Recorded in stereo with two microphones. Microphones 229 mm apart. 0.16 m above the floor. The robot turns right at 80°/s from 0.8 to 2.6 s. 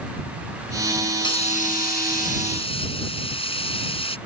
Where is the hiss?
30° left; by 4.2 s 140° left.